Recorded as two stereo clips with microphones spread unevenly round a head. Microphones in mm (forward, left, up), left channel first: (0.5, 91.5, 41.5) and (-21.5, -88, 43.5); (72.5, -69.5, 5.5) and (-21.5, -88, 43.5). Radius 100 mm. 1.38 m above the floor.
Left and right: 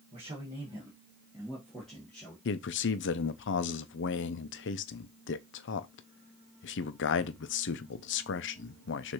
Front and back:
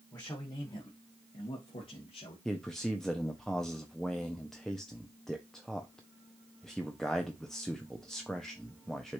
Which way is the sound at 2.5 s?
95° left.